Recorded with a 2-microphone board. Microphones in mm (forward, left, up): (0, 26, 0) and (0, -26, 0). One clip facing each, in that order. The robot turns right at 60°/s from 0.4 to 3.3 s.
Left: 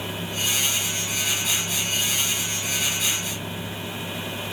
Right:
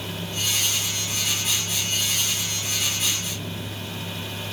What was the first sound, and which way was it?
Only background noise.